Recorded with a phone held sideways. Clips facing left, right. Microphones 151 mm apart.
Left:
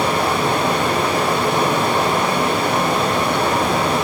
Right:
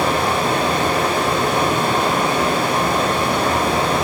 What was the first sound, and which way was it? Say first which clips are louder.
A fan: even; 65° left (ahead or behind).